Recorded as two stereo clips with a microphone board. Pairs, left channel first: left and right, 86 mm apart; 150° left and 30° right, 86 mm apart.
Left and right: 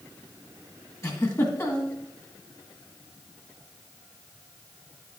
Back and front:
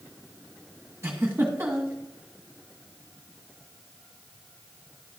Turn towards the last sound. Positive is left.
turn(degrees=35)